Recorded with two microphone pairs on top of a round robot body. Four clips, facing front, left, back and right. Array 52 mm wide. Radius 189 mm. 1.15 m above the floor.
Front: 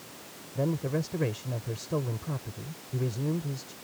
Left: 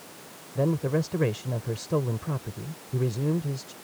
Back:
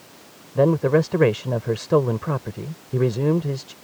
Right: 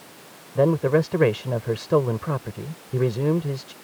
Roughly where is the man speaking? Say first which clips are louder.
Right 7 dB, back 13 dB; behind right.